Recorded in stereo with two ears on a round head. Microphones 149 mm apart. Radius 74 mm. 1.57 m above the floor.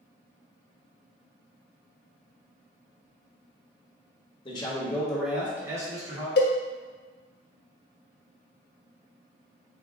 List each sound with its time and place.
4.5 s a man speaking: 30° left (ahead or behind), 0.9 m; by 6.3 s 25° right (ahead or behind), 1.7 m
6.4 s a cowbell: 65° left (ahead or behind), 0.6 m